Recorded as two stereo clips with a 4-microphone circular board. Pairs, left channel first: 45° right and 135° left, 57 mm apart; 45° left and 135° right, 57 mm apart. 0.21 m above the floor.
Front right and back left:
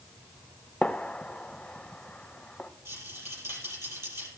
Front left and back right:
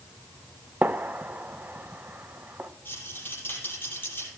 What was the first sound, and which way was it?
A gunshot, 105° right.